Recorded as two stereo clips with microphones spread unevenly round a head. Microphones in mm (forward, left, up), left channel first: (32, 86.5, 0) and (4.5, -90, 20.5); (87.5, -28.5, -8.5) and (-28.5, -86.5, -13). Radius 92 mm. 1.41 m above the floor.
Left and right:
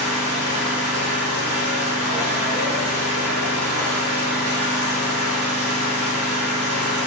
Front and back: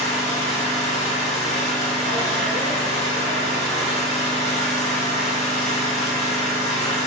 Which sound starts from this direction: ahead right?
An engine running, at 0.0 s.